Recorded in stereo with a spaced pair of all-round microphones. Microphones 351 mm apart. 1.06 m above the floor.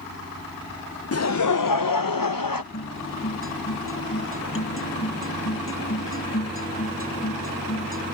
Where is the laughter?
40° left (ahead or behind); by 2.6 s 70° left (ahead or behind).